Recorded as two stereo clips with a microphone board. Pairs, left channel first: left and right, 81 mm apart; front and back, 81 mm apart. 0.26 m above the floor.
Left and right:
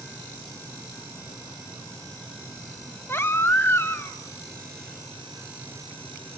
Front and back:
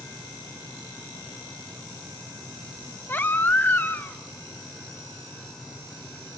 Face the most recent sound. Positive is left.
turn(degrees=50)